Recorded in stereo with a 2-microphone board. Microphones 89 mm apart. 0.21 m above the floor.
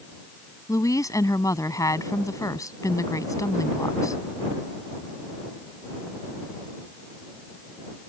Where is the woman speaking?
40° left (ahead or behind).